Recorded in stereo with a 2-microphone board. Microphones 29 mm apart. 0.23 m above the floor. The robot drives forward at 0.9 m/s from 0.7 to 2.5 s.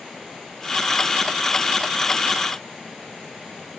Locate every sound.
Only background noise.